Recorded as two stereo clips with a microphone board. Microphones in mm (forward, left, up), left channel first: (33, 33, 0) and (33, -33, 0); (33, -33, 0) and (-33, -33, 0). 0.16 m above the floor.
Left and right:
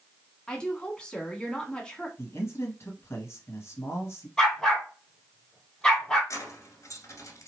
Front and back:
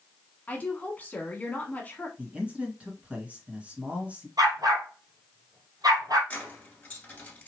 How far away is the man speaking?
About 1.5 m.